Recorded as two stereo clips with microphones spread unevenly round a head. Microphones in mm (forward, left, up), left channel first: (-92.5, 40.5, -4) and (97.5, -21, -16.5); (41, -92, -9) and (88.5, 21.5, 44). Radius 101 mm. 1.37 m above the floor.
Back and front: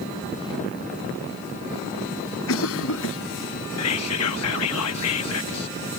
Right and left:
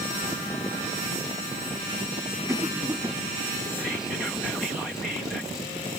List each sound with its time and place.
2.5 s a cough: 145° left
3.8 s whispering: 155° left